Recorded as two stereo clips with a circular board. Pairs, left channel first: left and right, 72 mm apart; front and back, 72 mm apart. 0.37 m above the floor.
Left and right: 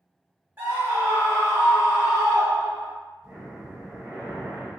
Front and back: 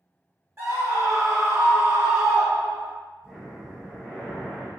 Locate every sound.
0.6 s a scream: 145° right, 1.3 m
3.2 s breathing: 115° right, 1.5 m